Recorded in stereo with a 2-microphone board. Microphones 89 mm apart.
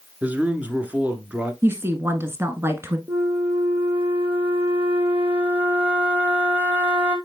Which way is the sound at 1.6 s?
30° right (ahead or behind).